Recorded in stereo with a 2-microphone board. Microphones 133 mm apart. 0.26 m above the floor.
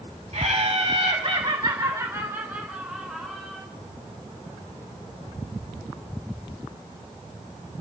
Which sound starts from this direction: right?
Laughter, at 0.3 s.